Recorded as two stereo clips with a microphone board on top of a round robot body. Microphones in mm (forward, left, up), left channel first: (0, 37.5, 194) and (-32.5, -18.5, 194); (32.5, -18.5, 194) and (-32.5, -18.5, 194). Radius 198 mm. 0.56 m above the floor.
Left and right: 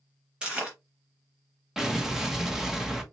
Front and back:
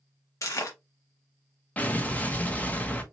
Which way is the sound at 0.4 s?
45° right.